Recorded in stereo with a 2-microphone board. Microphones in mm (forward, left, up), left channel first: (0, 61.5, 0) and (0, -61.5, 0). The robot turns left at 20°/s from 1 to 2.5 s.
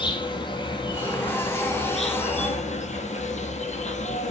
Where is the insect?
140° left, 1.4 m; by 4.3 s 110° left, 1.4 m.